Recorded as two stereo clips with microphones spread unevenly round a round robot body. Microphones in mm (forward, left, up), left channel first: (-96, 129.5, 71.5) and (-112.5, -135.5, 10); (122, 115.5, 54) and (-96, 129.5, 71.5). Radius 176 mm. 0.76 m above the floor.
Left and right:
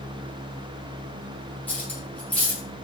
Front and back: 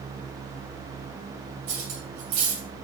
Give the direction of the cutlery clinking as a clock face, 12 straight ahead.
6 o'clock.